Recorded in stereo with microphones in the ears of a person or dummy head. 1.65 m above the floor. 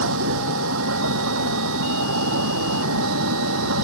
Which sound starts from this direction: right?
A vehicle, at 0.0 s.